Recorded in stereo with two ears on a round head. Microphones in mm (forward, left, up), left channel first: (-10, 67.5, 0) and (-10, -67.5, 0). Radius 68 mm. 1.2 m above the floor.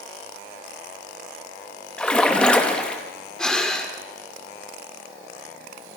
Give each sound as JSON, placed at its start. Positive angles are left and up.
{"t": 2.0, "sound": "a splash", "side_deg": 5, "distance_m": 2.5}
{"t": 3.4, "sound": "breathing", "side_deg": 5, "distance_m": 2.5}